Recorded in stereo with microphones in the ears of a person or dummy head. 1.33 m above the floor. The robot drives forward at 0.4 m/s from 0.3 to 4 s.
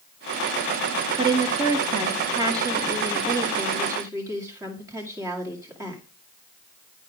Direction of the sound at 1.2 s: 25° right (ahead or behind).